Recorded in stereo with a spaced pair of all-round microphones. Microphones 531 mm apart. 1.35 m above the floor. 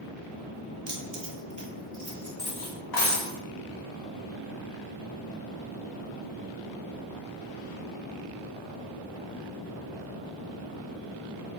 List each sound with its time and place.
0.9 s keys jangling: 65° right (ahead or behind), 0.9 m; by 2.3 s 40° right (ahead or behind), 1.4 m
2.4 s cutlery clinking: 45° left (ahead or behind), 0.7 m